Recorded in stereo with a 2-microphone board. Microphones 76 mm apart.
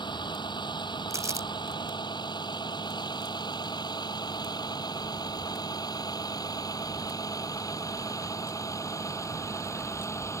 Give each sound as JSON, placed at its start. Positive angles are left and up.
{"t": 0.0, "sound": "a vehicle", "side_deg": 85}
{"t": 1.1, "sound": "crumpling", "side_deg": -45}